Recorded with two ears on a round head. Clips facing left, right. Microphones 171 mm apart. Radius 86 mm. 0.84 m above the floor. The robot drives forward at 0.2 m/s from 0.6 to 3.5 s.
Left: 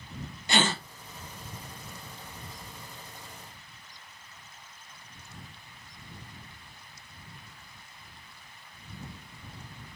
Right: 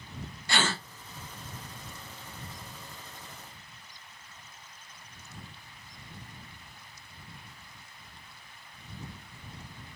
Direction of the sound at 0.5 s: 15° left (ahead or behind).